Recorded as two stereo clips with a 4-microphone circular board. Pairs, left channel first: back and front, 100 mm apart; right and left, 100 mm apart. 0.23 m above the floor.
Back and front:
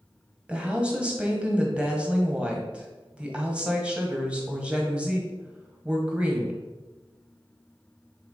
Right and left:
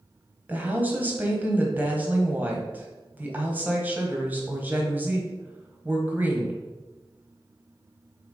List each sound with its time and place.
0.5 s a woman speaking: 60° left, 1.3 m